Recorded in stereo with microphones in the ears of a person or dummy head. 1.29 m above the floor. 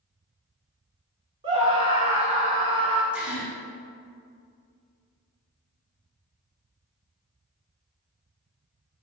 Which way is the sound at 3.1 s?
5° right (ahead or behind).